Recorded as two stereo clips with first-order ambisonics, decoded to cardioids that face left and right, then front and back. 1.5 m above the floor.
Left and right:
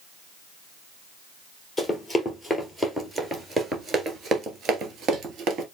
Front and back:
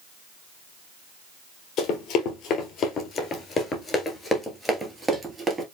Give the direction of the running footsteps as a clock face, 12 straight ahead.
12 o'clock.